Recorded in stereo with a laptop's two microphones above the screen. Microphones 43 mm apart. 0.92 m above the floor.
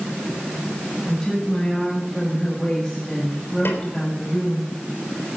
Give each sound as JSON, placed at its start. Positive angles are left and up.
{"t": 1.1, "sound": "a woman speaking", "side_deg": 10, "distance_m": 5.5}
{"t": 3.6, "sound": "a snare drum", "side_deg": 55, "distance_m": 3.5}